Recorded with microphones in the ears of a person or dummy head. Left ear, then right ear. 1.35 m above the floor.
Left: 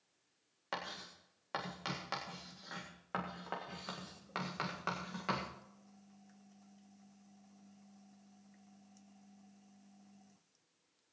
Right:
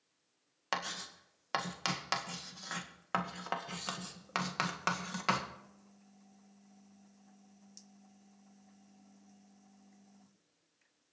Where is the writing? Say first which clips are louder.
Right 6 dB; 70° right (ahead or behind), 1.7 m.